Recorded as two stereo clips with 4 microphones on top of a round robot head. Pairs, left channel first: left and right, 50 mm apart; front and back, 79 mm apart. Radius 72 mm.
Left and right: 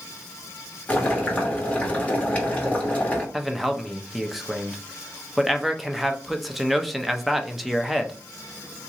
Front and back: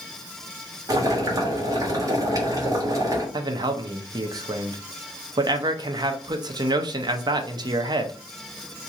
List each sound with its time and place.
0.9 s boiling: 150° left, 1.6 m
3.3 s a man speaking: straight behind, 0.8 m